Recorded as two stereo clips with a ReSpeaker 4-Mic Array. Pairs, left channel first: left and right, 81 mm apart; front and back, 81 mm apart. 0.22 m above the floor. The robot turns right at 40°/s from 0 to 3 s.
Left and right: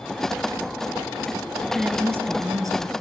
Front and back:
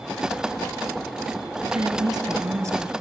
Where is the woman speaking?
170° right, 3.5 m; by 2.9 s 120° right, 3.5 m.